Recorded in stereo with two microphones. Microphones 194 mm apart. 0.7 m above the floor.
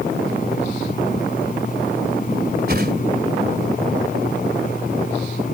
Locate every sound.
2.7 s a whoosh: 55° right (ahead or behind)